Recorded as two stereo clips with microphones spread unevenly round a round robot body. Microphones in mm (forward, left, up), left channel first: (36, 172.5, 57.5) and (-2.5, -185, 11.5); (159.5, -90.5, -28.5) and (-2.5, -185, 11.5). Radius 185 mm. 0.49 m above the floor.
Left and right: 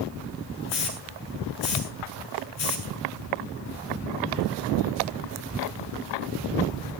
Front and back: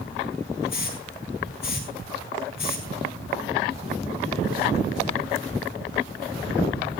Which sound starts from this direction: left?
A hiss, at 0.7 s.